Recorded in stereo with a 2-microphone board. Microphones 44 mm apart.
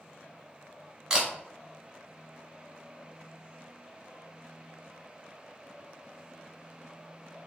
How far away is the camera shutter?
About 1.1 m.